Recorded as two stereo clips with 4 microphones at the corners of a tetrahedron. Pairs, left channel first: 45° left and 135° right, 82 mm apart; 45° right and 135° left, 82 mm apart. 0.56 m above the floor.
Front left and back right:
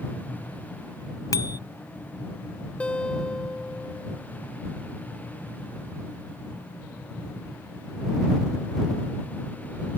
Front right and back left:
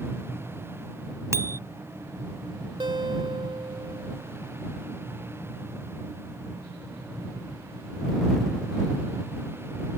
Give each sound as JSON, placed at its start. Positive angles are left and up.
{"t": 1.3, "sound": "a bicycle bell", "azimuth_deg": 85}
{"t": 2.8, "sound": "a guitar", "azimuth_deg": 120}